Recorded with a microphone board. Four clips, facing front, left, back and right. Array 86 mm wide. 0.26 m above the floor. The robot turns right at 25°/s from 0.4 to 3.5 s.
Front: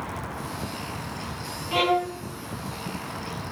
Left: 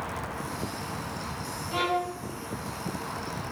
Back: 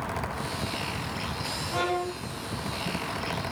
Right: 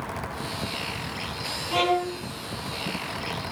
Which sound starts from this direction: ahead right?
A violin, at 1.7 s.